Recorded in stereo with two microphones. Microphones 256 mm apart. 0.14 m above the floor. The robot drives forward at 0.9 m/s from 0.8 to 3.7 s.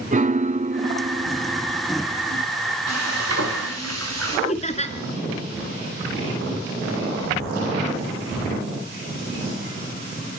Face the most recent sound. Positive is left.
turn(degrees=25)  # may be behind; listen again after turning